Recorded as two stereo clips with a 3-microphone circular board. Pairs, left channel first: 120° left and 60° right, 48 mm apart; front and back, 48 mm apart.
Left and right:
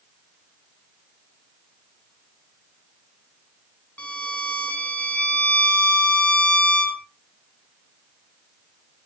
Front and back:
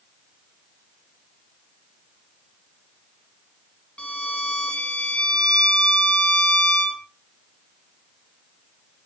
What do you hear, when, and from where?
4.0 s a violin: 65° left, 0.9 m